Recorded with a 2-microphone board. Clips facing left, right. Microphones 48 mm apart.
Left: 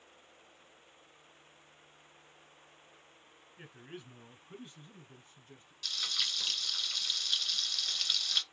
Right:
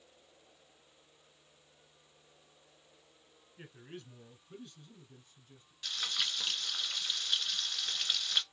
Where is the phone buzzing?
No phone buzzing in this recording.